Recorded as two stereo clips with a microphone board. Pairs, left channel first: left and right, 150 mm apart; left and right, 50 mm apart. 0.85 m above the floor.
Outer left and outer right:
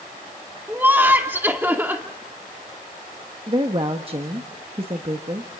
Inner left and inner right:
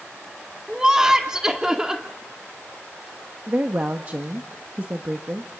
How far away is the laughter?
About 2.5 m.